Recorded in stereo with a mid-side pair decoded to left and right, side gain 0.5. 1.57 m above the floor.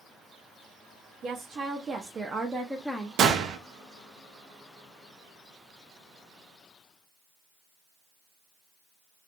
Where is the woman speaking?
55° right, 1.1 m; by 3.1 s 15° left, 0.6 m.